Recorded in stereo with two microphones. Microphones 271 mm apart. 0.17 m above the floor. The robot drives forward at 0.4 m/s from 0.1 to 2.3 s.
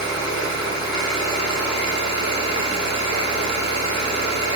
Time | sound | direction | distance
0.0 | an engine running | 50° left (ahead or behind) | 2.5 m